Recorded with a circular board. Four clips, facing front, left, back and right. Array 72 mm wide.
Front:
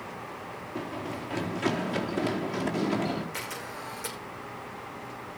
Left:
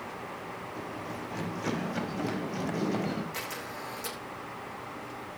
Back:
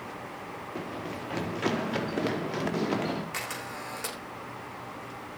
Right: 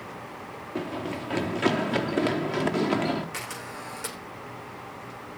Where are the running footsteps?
95° right, 3 m; by 3.2 s 105° right, 4.5 m.